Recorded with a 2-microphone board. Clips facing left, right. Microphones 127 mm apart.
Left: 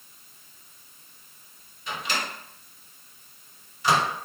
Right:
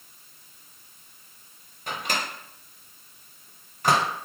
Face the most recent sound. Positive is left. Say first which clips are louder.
# right 1 dB
turn(degrees=-50)  # may be behind; listen again after turning